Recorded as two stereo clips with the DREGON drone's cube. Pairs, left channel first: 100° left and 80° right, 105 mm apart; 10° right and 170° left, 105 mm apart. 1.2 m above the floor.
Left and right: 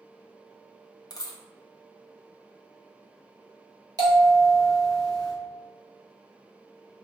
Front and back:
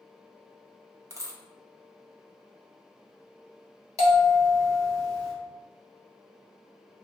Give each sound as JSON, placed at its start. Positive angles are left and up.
{"t": 1.1, "sound": "a dropped coin", "azimuth_deg": 130, "distance_m": 0.6}
{"t": 4.0, "sound": "a bell", "azimuth_deg": -130, "distance_m": 1.3}